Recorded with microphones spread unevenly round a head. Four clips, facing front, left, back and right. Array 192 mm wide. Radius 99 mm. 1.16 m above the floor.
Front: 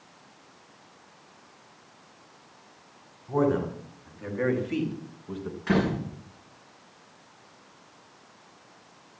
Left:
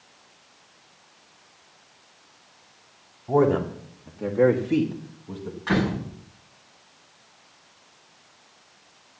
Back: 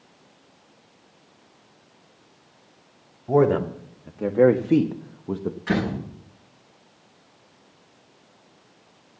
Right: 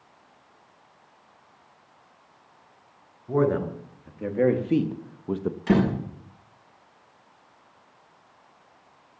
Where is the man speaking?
165° left, 3 m; by 5.6 s 130° right, 1.1 m.